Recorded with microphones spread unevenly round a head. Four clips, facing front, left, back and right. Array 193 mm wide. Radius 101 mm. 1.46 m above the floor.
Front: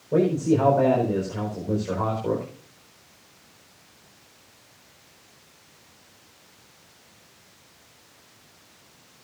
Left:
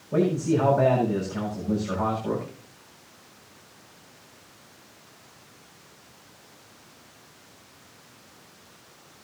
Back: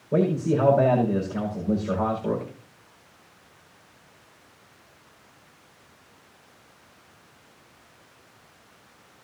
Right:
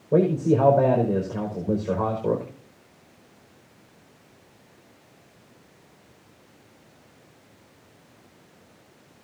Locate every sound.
0.1 s a man speaking: 85° right, 5 m